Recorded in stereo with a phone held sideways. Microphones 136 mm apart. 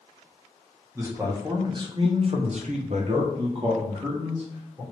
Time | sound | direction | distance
0.9 | a man speaking | 20° right (ahead or behind) | 1.2 m